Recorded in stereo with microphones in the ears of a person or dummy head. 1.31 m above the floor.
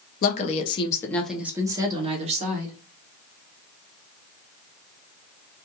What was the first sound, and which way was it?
A woman speaking, 50° left (ahead or behind).